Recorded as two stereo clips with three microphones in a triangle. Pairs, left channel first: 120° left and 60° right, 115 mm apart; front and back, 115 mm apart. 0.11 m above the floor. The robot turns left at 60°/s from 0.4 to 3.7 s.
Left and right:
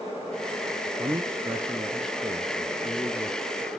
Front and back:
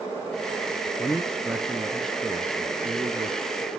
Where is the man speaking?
50° right, 1.2 m; by 3.4 s 160° left, 1.2 m.